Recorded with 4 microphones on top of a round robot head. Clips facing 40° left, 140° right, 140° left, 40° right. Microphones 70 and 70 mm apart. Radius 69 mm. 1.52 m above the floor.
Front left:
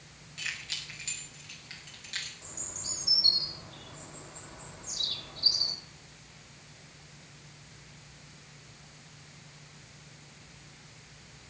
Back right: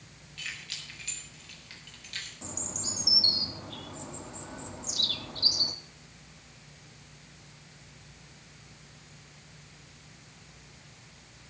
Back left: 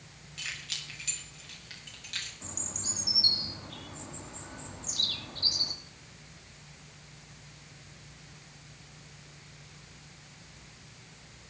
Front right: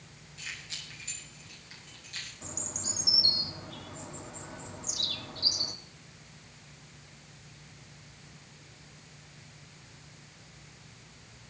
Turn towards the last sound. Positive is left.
turn(degrees=-125)